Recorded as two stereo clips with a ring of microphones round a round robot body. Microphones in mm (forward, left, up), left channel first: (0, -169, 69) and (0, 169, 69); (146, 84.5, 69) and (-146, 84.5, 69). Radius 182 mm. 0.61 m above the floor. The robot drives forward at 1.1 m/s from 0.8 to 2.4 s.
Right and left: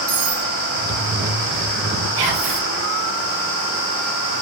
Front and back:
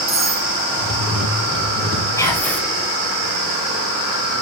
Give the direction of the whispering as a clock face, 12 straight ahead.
9 o'clock.